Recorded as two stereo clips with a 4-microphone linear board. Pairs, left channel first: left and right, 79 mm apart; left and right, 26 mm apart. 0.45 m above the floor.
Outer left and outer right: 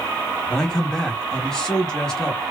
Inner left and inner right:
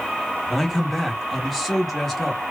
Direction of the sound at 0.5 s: 5° left (ahead or behind).